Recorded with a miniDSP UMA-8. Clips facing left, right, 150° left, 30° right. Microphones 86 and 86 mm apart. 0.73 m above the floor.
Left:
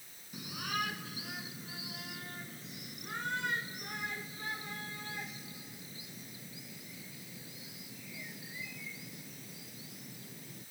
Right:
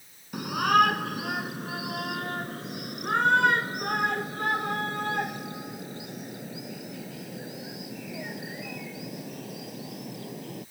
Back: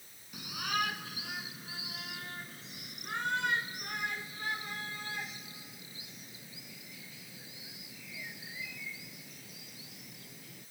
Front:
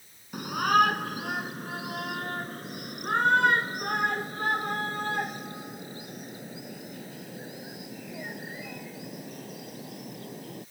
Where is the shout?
65° right.